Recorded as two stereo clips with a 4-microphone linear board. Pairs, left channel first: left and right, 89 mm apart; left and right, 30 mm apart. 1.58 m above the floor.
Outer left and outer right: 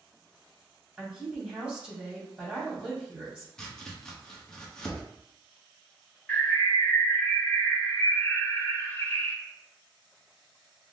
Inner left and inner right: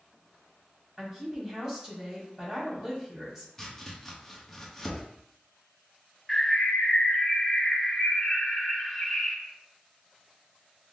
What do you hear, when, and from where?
1.0 s a woman speaking: 10° right (ahead or behind), 2.5 m
3.6 s chopping: 5° left (ahead or behind), 0.9 m
6.3 s a bird: 20° left (ahead or behind), 0.9 m